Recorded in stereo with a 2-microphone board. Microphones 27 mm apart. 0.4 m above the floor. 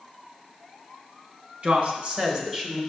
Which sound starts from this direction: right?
A woman speaking, at 1.6 s.